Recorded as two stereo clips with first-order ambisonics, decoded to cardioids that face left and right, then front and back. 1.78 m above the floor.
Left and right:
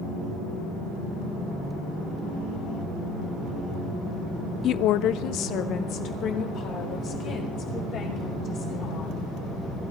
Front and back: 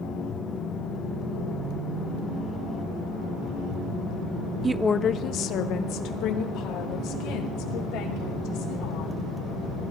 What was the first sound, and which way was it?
A woman speaking, 125° left.